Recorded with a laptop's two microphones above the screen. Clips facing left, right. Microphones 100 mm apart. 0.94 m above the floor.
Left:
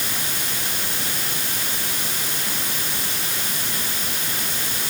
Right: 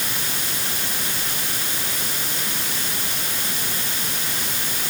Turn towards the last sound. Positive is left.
No sound to turn to.